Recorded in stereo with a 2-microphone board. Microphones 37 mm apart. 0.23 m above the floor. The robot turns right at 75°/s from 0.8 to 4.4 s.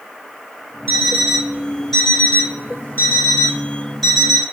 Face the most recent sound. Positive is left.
turn(degrees=-160)